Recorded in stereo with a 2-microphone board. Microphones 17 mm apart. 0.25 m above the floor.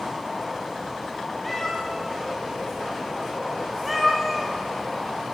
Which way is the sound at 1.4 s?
10° left (ahead or behind).